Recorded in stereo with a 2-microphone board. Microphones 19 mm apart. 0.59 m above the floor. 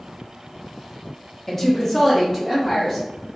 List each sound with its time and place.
1.5 s a woman speaking: 15° left (ahead or behind), 0.6 m; by 3.0 s 5° left (ahead or behind), 1.1 m